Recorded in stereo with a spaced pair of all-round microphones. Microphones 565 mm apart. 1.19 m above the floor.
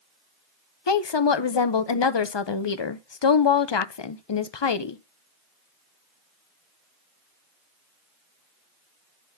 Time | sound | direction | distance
0.9 | a woman speaking | 50° left (ahead or behind) | 0.6 m